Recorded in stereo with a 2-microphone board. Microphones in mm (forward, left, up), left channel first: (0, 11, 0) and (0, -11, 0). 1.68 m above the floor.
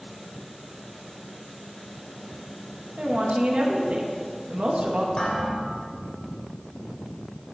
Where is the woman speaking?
80° right, 2.5 m.